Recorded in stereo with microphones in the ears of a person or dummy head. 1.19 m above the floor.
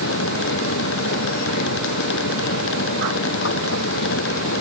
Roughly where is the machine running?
Left.